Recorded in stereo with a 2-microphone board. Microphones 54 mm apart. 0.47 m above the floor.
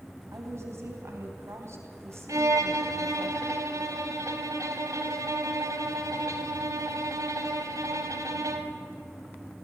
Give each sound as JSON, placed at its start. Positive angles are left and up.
{"t": 0.3, "sound": "a woman speaking", "side_deg": -60, "distance_m": 3.5}
{"t": 2.3, "sound": "a violin", "side_deg": -80, "distance_m": 1.5}